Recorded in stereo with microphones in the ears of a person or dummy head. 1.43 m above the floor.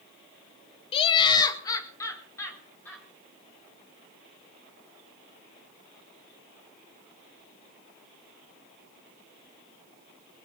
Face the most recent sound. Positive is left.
turn(degrees=15)  # may be behind; listen again after turning